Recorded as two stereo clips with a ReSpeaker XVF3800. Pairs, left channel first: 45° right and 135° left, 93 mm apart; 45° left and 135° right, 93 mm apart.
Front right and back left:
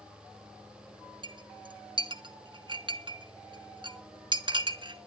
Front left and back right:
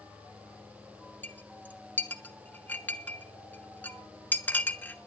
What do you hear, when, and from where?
1.2 s a clink: 115° left, 1.3 m